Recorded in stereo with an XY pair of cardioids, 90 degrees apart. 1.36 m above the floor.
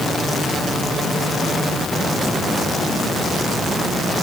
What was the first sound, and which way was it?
Only background noise.